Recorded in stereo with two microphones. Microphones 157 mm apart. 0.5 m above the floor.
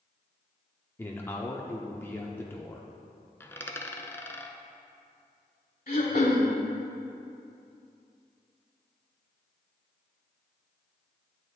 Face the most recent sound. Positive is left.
turn(degrees=60)  # may be behind; listen again after turning